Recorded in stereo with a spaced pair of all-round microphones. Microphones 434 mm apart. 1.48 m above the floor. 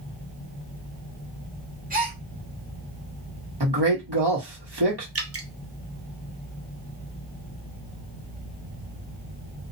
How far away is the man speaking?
About 1.2 m.